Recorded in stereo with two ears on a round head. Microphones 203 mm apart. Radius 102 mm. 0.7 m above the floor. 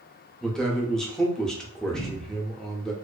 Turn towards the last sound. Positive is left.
turn(degrees=-25)  # may be behind; listen again after turning